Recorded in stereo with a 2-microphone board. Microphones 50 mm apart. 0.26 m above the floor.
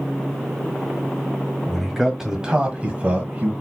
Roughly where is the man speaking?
Centre.